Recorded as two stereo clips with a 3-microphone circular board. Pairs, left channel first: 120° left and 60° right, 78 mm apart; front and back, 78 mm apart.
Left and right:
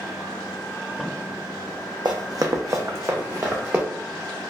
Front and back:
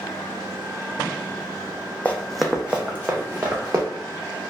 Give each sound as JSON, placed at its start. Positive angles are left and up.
{"t": 2.0, "sound": "running footsteps", "azimuth_deg": -70, "distance_m": 0.5}